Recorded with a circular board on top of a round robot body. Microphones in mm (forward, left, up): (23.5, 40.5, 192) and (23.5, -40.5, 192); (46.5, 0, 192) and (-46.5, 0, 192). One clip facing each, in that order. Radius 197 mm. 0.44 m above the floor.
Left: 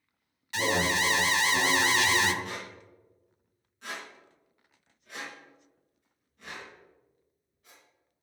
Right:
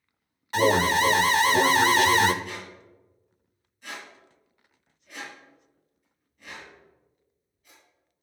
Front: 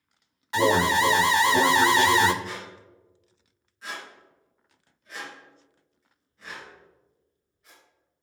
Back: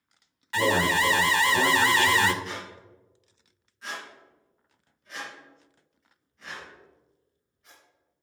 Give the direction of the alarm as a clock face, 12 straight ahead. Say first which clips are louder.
Right 7 dB, front 3 dB; 2 o'clock.